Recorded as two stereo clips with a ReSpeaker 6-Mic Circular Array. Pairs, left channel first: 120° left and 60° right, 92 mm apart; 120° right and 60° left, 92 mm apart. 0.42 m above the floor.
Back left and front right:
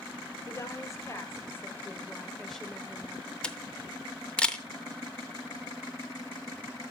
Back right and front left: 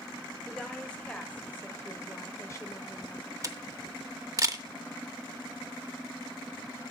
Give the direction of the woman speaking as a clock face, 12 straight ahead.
7 o'clock.